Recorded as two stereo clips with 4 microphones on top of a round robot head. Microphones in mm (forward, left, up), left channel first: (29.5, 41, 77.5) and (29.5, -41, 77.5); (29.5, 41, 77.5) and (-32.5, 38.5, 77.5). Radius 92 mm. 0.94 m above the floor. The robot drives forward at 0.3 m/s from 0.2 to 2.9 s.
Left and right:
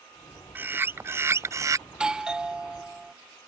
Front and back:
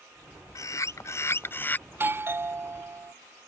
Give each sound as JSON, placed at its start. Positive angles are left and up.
{"t": 0.6, "sound": "a bird", "azimuth_deg": -25}
{"t": 1.9, "sound": "a doorbell", "azimuth_deg": -160}